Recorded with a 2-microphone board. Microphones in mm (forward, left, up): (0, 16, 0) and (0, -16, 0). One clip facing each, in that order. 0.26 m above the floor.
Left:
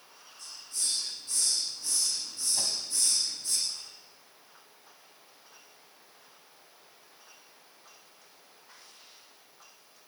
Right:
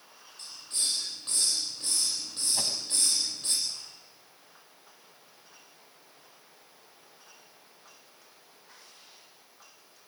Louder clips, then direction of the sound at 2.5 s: Right 1 dB; 20° right (ahead or behind).